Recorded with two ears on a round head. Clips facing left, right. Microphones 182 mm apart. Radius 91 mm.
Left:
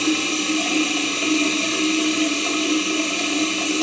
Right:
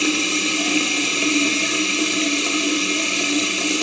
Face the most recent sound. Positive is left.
turn(degrees=-30)  # may be behind; listen again after turning